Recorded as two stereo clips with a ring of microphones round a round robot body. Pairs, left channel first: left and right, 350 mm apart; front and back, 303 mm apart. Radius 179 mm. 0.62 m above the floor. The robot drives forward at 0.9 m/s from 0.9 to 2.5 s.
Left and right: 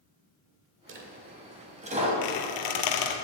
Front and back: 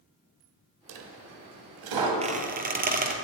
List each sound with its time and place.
0.9 s a dropped coin: 150° right, 1.3 m; by 2.1 s 165° right, 2.5 m
2.2 s a squeak: 110° left, 1.5 m; by 3.1 s 120° left, 1.7 m